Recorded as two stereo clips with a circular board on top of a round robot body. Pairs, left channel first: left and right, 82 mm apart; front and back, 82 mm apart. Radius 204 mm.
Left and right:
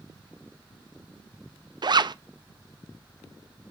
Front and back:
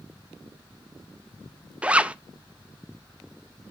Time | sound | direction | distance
1.8 | a zipper | 105° right | 0.5 m